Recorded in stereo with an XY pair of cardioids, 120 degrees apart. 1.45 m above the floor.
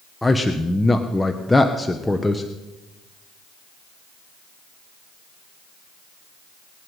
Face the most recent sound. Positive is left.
turn(degrees=10)